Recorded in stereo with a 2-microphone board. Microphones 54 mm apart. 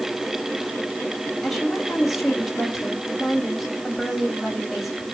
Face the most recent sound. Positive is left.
turn(degrees=0)  # may be behind; listen again after turning